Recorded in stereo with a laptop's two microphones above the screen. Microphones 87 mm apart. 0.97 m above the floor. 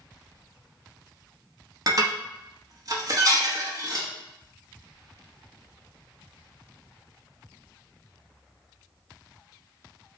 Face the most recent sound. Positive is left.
turn(degrees=-45)  # may be behind; listen again after turning